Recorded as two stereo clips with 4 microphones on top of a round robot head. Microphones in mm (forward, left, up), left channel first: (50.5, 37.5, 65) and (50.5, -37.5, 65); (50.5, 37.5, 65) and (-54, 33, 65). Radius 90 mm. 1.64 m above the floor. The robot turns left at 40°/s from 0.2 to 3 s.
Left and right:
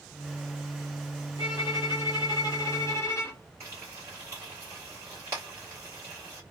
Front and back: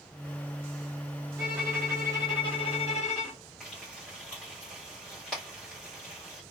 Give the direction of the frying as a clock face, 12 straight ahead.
3 o'clock.